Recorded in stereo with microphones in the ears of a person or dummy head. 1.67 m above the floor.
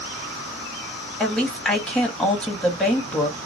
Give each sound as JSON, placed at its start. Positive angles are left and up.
{"t": 1.2, "sound": "a woman speaking", "side_deg": 5, "distance_m": 1.5}